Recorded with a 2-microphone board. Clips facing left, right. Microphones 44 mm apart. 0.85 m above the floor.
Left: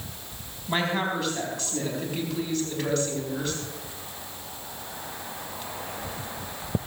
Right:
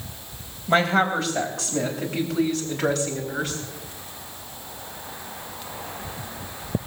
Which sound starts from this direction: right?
A woman speaking, at 0.7 s.